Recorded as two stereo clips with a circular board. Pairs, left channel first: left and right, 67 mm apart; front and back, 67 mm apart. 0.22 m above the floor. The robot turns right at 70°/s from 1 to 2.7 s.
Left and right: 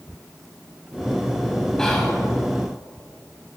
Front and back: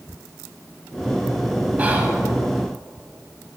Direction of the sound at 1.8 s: 160° left.